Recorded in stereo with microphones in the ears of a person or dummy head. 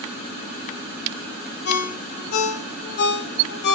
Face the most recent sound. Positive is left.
turn(degrees=50)  # may be behind; listen again after turning